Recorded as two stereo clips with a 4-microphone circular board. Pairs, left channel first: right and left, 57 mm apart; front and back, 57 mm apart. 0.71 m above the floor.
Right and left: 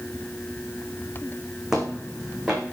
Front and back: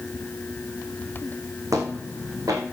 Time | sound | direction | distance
1.7 | footsteps | 170° left | 3.5 m